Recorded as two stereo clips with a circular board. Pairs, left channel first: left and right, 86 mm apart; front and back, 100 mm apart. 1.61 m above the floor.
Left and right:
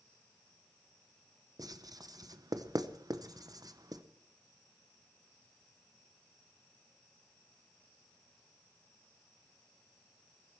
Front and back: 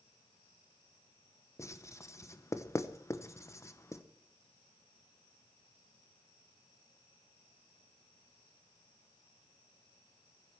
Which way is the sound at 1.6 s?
55° right.